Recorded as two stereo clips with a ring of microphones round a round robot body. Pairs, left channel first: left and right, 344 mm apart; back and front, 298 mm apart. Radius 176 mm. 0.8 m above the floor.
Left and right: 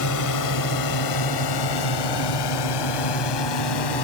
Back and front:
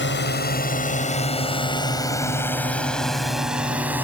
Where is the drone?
130° left; by 4.0 s 85° left.